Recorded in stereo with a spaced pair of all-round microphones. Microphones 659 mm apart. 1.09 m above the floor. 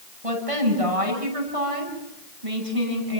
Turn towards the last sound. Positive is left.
turn(degrees=-55)  # may be behind; listen again after turning